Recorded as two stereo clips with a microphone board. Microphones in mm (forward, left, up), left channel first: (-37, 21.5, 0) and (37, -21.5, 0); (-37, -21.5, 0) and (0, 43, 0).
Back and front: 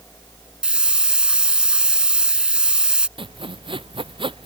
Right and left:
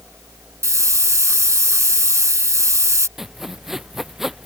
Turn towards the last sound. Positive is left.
turn(degrees=-25)